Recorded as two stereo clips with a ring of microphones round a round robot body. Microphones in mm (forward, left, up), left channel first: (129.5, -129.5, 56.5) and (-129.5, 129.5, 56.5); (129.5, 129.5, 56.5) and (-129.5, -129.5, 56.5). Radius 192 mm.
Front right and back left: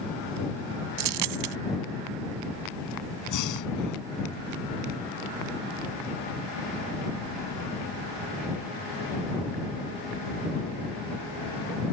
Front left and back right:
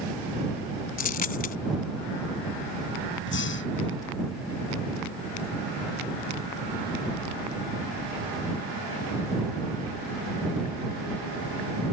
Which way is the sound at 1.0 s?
115° left.